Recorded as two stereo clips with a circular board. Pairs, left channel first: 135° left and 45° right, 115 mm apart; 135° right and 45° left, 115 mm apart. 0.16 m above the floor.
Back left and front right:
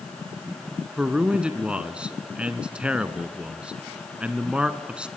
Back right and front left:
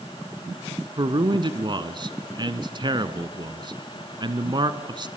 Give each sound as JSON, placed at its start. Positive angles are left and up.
{"t": 1.0, "sound": "a man speaking", "azimuth_deg": 30, "distance_m": 1.4}